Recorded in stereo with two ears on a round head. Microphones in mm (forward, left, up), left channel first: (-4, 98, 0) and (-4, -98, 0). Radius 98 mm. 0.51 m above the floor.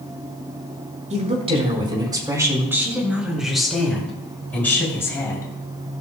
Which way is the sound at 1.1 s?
35° right (ahead or behind).